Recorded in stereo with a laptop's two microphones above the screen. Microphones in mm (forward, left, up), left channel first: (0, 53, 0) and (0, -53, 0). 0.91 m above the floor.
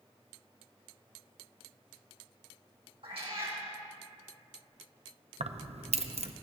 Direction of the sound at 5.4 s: 75° right (ahead or behind).